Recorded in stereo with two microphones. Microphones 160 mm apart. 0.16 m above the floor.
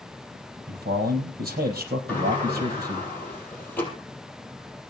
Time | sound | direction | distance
0.7 | a man speaking | 65° right (ahead or behind) | 4.5 m
2.1 | a sliding door | 10° left (ahead or behind) | 4.5 m